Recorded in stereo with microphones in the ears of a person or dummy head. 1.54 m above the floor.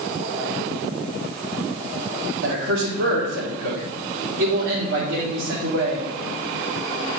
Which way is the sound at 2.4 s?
80° right.